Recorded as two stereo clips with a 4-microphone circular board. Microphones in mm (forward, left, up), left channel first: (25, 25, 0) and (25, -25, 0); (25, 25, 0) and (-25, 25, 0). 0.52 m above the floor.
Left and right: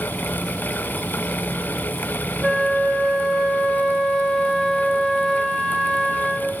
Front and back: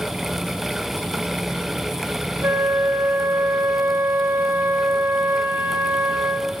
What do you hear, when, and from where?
2.4 s a flute: straight behind, 0.6 m